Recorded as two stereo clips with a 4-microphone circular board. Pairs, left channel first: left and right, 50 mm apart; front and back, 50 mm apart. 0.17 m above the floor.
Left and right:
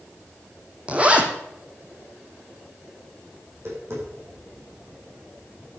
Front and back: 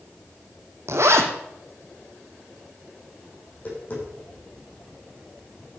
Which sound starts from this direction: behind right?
A zipper, at 0.9 s.